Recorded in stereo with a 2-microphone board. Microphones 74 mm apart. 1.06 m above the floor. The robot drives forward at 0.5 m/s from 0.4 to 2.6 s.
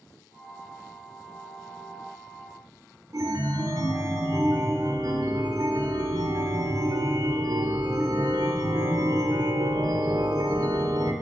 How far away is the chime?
About 1.0 m.